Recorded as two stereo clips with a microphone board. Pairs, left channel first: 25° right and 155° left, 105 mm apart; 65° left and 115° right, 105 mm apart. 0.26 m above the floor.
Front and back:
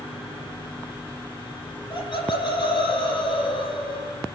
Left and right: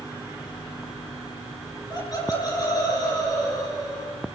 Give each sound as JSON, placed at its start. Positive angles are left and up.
{"t": 1.9, "sound": "laughter", "azimuth_deg": 15, "distance_m": 9.5}